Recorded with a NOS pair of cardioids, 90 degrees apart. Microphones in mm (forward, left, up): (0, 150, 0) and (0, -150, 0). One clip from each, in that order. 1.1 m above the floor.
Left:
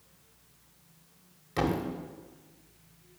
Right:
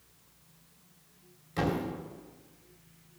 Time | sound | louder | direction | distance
1.6 | a thud | left 2 dB | 30° left | 2.5 m